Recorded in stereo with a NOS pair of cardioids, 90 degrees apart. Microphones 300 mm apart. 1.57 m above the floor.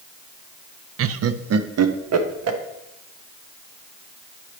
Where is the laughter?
50° right, 0.5 m; by 2.6 s 60° right, 1.6 m.